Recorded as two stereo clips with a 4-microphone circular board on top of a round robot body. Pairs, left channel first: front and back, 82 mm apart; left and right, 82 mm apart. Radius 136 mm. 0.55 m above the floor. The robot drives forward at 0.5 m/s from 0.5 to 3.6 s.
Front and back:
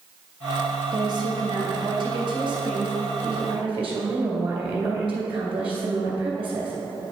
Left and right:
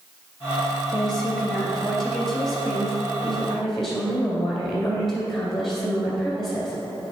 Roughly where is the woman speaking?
Behind.